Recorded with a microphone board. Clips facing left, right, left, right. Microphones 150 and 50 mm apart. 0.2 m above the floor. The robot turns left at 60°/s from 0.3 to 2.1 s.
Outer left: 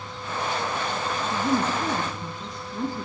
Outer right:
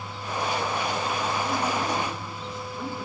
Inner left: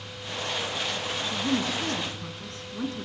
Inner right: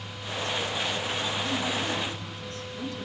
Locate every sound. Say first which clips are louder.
1.3 s a woman speaking: outer left 7 dB, inner left 5 dB; 95° left, 2 m; by 3.1 s 50° left, 2 m